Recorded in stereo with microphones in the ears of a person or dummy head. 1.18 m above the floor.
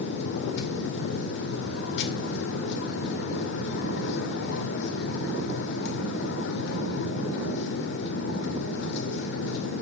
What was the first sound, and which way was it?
A machine running, 70° left (ahead or behind).